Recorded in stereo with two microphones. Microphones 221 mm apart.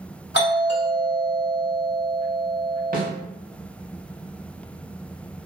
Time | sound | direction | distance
0.3 | a doorbell | 50° left (ahead or behind) | 1.6 m
2.9 | a snare drum | 40° right (ahead or behind) | 0.8 m